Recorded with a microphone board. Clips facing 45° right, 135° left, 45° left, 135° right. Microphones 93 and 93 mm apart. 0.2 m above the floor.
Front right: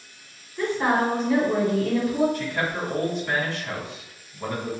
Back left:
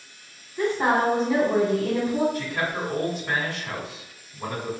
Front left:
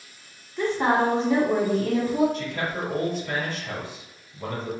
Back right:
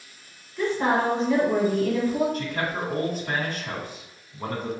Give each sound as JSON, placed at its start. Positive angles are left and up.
{"t": 0.6, "sound": "a woman speaking", "azimuth_deg": 80, "distance_m": 1.5}
{"t": 2.3, "sound": "a man speaking", "azimuth_deg": -155, "distance_m": 1.5}